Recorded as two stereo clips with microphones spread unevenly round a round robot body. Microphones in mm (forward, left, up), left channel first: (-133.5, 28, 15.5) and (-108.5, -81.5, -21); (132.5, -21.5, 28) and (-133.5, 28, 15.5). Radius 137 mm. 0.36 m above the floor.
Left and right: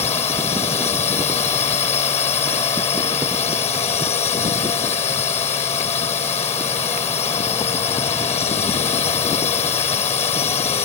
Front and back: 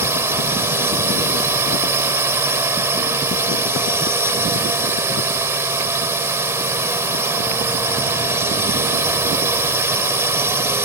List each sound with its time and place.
0.0 s a drone: 95° left